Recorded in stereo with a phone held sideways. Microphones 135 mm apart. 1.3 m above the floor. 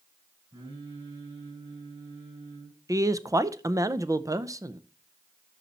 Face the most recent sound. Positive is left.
turn(degrees=-25)  # may be behind; listen again after turning